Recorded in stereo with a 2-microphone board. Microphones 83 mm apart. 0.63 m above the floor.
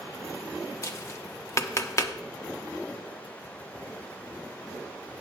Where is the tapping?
35° left (ahead or behind), 0.7 m.